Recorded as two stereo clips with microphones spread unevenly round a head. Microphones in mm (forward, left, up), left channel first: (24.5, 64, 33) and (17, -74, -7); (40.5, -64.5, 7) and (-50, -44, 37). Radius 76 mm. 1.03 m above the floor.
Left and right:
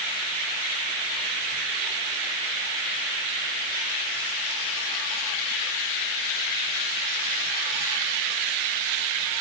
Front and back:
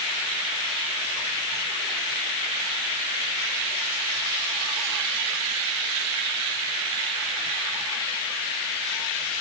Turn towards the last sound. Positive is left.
No sound to turn to.